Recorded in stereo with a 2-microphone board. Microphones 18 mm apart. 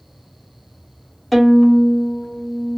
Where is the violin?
5° left (ahead or behind), 1.1 m.